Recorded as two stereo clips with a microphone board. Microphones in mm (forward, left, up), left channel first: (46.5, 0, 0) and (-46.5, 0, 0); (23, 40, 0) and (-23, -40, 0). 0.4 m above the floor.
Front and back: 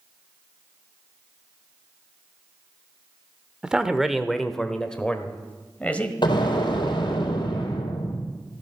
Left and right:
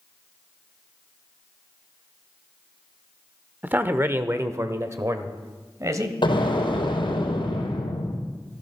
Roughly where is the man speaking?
Behind right.